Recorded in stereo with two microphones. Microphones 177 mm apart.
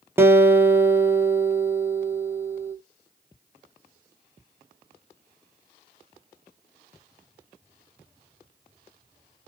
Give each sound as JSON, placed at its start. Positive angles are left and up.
{"t": 0.2, "sound": "a guitar", "side_deg": -15, "distance_m": 0.8}